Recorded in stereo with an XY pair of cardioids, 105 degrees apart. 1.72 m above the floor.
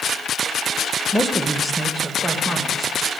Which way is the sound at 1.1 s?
10° left.